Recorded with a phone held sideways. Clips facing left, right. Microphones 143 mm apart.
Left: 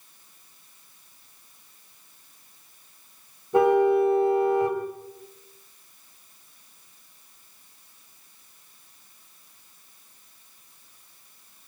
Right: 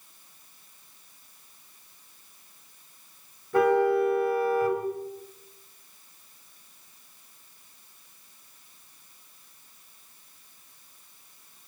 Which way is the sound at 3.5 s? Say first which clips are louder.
Left 3 dB; 20° left (ahead or behind).